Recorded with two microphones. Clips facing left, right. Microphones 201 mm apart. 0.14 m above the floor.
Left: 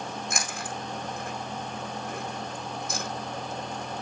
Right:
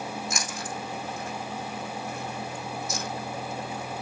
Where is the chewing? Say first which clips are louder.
Even; 55° left (ahead or behind), 3 m.